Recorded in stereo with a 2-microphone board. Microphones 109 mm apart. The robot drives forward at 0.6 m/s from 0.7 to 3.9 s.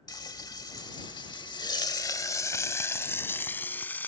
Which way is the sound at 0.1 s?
35° left (ahead or behind).